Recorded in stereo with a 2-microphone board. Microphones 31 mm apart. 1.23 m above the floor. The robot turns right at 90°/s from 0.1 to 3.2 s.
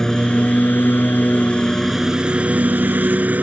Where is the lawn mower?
15° left; by 3.4 s 65° right.